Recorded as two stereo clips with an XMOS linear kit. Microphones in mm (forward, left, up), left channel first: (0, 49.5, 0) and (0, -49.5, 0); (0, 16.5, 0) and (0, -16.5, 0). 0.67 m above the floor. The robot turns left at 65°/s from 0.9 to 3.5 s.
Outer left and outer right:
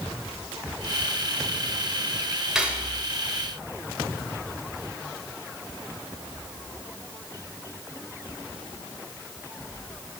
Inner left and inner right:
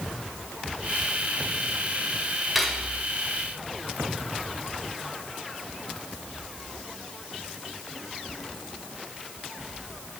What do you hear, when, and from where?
2.5 s cutlery clinking: 5° right (ahead or behind), 1.4 m; by 2.9 s 30° right (ahead or behind), 1.4 m